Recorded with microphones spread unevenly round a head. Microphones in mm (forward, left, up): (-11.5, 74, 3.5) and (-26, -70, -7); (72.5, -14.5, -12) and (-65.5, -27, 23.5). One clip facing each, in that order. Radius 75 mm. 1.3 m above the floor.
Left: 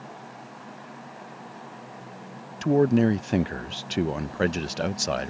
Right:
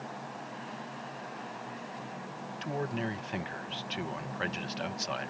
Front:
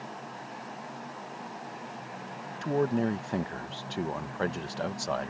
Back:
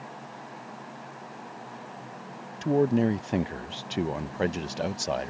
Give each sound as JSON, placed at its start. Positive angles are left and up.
{"t": 2.6, "sound": "a man speaking", "azimuth_deg": 115}